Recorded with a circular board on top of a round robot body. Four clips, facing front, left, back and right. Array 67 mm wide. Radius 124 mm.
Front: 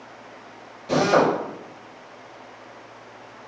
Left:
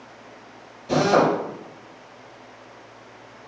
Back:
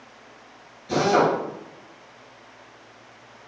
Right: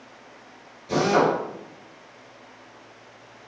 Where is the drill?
15° left, 5.5 m.